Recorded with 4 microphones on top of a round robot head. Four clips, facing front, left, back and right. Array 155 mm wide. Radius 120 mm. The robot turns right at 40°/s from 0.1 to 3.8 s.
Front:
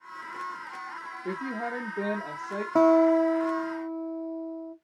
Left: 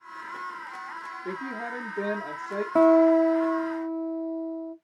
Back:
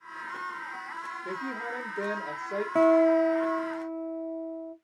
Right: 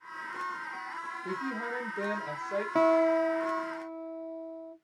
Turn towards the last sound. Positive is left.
turn(degrees=100)